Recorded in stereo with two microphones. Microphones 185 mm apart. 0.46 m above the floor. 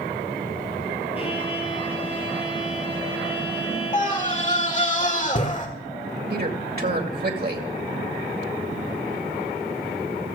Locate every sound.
1.1 s a violin: 30° left (ahead or behind), 3 m
3.9 s a scream: 40° left (ahead or behind), 1.6 m
6.3 s a man speaking: 55° right (ahead or behind), 2 m